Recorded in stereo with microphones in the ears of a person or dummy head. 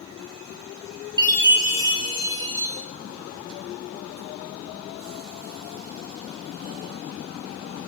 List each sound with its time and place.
1.2 s a chime: 15° right (ahead or behind), 0.9 m